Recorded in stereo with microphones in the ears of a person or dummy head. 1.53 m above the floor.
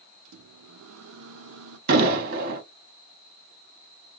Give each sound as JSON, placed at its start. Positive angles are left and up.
{"t": 0.2, "sound": "a microwave", "side_deg": -75, "distance_m": 0.6}
{"t": 1.9, "sound": "an explosion", "side_deg": -50, "distance_m": 1.1}